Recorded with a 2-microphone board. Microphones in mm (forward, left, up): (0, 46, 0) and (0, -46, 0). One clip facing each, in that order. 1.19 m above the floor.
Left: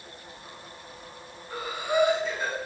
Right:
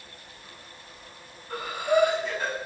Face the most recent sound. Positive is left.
turn(degrees=-55)  # may be behind; listen again after turning